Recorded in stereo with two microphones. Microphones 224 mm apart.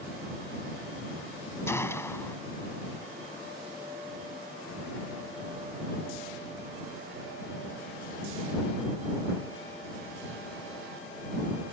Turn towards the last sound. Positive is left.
turn(degrees=10)  # may be behind; listen again after turning